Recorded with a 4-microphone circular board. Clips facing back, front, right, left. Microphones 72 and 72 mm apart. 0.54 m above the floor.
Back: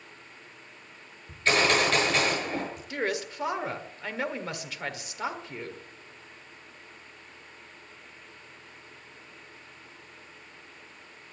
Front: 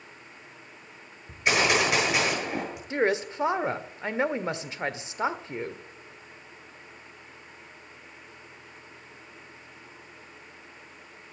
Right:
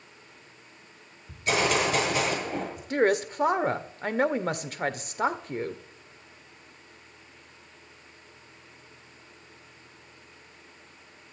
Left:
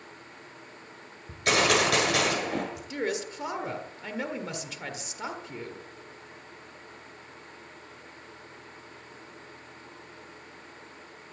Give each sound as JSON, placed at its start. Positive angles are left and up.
{"t": 1.3, "sound": "a gunshot", "azimuth_deg": 75, "distance_m": 7.5}
{"t": 2.9, "sound": "a woman speaking", "azimuth_deg": -60, "distance_m": 1.6}